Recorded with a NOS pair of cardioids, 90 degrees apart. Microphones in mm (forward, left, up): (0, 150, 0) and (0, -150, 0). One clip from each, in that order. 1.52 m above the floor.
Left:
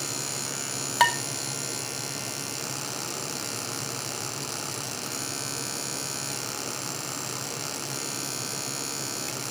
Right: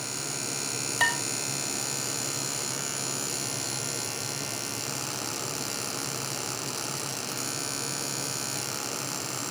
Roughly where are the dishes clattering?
Ahead left.